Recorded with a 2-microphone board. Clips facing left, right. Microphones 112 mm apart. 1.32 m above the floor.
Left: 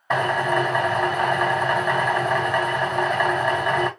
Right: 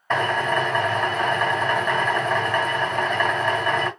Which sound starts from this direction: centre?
A drill, at 0.1 s.